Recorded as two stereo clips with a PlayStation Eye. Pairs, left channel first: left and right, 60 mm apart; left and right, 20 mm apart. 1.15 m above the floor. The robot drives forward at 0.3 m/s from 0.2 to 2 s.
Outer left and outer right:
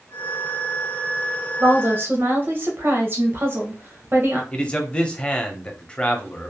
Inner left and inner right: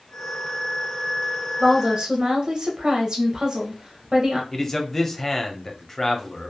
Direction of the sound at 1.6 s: 35° right (ahead or behind).